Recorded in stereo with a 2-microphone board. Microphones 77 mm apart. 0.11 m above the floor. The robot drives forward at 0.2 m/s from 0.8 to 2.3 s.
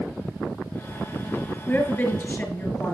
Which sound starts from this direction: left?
A woman speaking, at 1.7 s.